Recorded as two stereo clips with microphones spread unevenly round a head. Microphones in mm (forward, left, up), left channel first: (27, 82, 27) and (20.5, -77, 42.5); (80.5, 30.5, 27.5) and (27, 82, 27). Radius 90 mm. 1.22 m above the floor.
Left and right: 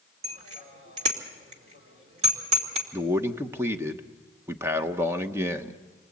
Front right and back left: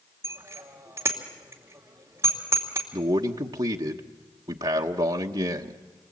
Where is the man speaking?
170° right, 1.0 m.